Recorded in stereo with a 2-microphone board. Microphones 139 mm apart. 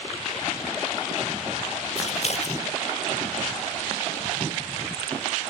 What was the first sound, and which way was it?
Scissors, 55° left (ahead or behind).